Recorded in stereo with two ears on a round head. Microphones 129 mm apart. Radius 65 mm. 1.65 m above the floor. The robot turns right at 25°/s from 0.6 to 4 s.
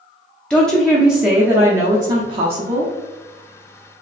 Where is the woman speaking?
175° left, 0.6 m; by 2.9 s 130° right, 0.6 m.